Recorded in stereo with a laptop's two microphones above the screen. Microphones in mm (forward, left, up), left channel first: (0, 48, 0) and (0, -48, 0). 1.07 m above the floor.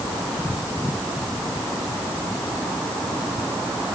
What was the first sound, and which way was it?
Only background noise.